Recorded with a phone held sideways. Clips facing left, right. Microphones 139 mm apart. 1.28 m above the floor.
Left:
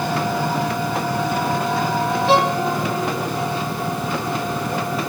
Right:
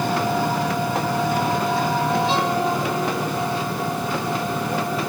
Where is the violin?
75° left (ahead or behind), 3 m.